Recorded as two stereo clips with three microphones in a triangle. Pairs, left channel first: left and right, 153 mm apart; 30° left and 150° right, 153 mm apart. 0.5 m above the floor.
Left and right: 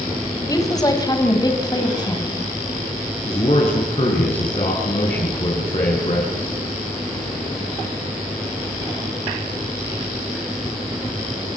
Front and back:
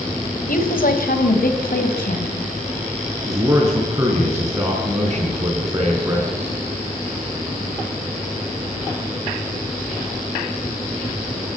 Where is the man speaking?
140° left, 5.5 m.